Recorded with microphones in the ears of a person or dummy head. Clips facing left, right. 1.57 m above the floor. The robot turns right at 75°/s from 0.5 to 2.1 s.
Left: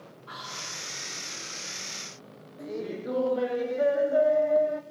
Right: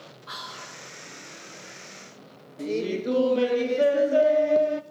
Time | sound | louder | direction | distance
0.3 | whispering | right 1 dB | 60° right (ahead or behind) | 3.5 m
2.6 | laughter | right 7 dB | 45° right (ahead or behind) | 0.8 m